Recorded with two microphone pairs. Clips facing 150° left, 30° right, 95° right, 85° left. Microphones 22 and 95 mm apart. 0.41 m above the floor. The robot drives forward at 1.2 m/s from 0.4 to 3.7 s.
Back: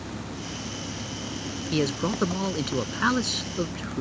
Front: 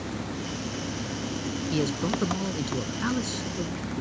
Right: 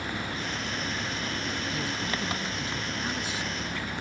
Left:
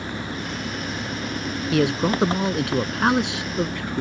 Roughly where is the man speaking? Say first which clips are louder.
Back 2 dB, left 12 dB; left.